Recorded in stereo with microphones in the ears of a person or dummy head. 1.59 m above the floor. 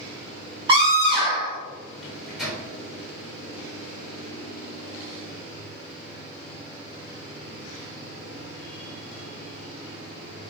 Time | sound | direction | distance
0.7 | a scream | 30° right (ahead or behind) | 2 m
2.0 | a microwave | centre (ahead or behind) | 3 m